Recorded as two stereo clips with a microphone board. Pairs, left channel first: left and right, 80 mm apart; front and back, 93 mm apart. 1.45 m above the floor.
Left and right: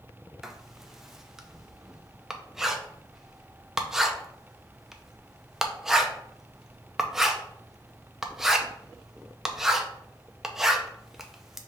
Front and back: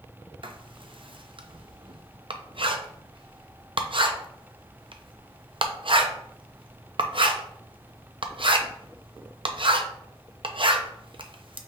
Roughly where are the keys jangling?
No keys jangling in this recording.